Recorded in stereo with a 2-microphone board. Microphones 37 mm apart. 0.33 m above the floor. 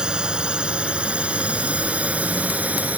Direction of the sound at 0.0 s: 20° right (ahead or behind).